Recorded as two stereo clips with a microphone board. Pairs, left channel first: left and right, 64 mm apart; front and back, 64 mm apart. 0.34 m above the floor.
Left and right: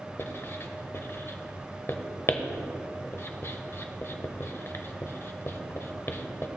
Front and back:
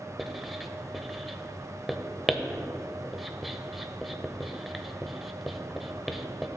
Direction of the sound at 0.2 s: 95° left.